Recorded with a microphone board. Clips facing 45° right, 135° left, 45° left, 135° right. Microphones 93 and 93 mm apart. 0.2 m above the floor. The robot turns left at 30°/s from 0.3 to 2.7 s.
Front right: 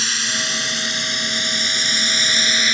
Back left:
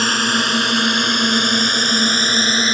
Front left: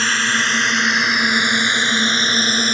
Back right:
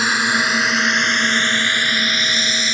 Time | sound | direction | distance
0.0 | a drone | 150° left | ?